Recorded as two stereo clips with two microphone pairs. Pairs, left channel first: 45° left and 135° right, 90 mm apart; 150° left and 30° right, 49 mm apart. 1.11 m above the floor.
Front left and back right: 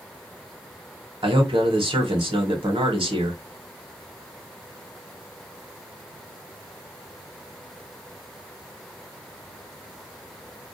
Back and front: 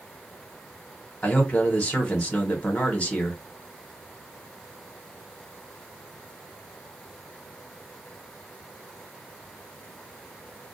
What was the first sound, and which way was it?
A man speaking, 150° right.